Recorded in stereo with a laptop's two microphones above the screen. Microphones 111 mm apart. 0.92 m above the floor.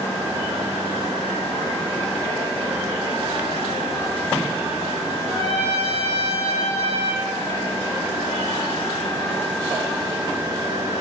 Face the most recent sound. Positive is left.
turn(degrees=-85)